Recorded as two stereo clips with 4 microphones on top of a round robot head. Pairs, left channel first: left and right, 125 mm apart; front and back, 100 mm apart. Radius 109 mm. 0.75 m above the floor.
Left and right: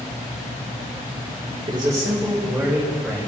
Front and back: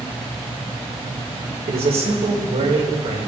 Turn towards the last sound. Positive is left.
turn(degrees=175)